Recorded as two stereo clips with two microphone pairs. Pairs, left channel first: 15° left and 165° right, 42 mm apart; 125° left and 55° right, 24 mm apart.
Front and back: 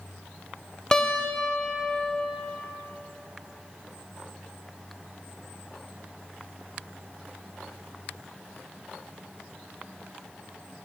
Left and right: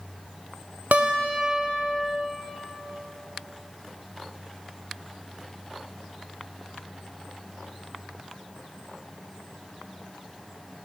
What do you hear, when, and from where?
0.9 s a guitar: 60° right, 0.6 m